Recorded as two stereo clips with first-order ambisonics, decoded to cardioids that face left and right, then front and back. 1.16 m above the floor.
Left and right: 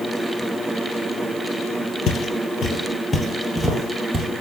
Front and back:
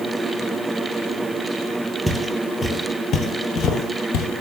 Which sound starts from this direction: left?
Footsteps, at 2.1 s.